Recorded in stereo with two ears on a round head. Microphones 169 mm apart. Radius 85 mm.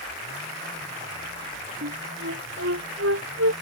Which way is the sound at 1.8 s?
80° right.